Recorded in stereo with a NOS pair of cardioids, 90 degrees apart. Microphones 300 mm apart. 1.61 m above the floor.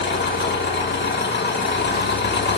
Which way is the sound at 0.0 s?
35° left.